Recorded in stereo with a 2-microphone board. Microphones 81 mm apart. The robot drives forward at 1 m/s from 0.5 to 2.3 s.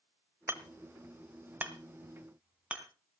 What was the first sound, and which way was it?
Hammering, 35° right (ahead or behind).